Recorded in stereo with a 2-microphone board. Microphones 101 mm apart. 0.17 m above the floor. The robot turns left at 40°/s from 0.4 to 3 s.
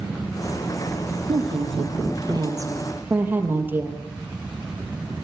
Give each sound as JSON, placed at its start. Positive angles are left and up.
{"t": 1.3, "sound": "a woman speaking", "azimuth_deg": -90, "distance_m": 4.0}